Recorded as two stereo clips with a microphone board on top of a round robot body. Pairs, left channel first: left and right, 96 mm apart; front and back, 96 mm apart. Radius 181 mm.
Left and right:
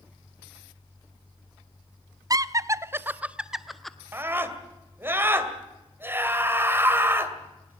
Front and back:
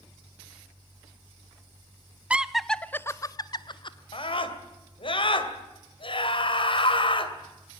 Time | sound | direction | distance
2.3 | laughter | 110° right | 0.9 m
4.1 | a scream | 25° right | 2.5 m